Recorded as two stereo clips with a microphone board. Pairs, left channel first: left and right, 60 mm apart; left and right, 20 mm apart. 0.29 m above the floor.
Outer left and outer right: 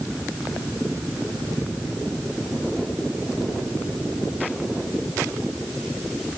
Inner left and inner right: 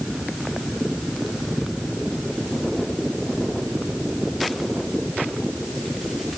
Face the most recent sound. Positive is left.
No sound to turn to.